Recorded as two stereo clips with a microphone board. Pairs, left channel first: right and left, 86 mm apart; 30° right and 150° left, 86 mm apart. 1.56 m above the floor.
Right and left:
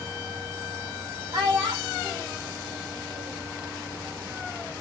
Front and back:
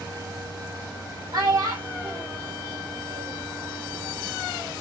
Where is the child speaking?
115° left, 2 m.